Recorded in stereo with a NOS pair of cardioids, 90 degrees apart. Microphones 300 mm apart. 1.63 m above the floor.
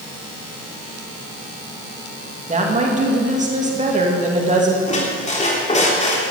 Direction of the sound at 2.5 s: 25° right.